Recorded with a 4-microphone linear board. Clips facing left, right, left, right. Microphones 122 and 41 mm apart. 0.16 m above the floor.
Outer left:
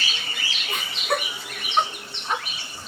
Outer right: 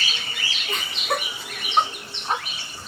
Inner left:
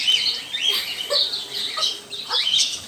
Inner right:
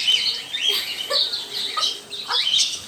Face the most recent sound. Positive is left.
turn(degrees=-35)  # may be behind; listen again after turning